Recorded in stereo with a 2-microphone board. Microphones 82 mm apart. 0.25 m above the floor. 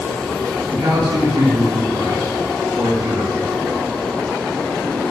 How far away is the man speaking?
About 3.5 m.